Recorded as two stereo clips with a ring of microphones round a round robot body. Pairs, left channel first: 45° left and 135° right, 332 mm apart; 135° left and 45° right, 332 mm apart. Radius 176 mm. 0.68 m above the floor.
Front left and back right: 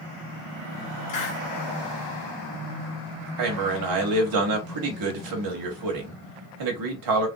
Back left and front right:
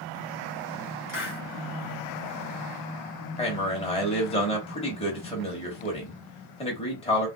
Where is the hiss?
80° left, 1.6 m.